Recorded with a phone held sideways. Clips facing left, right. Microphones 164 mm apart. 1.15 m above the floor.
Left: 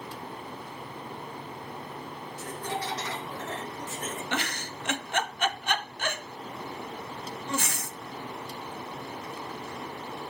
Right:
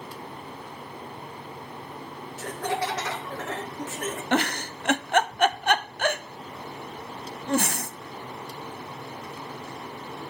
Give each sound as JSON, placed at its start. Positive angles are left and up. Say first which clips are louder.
{"t": 2.4, "sound": "laughter", "louder": "right 6 dB", "side_deg": -85, "distance_m": 0.7}
{"t": 4.3, "sound": "a giggle", "louder": "right 8 dB", "side_deg": -55, "distance_m": 0.9}